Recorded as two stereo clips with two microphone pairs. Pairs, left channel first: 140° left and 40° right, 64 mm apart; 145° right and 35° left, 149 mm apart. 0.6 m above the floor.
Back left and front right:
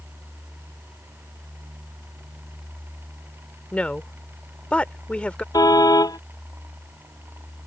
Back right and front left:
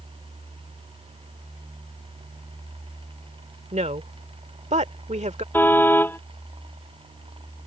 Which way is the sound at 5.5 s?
135° left.